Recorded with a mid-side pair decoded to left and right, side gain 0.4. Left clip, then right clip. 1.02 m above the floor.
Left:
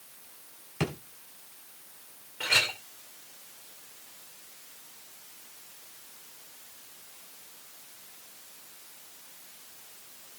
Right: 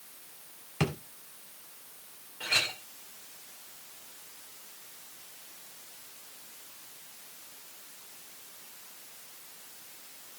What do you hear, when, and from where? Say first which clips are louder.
0.8 s a drawer: right 1 dB; 5° right, 3 m
2.4 s a clink: left 3 dB; 60° left, 2.5 m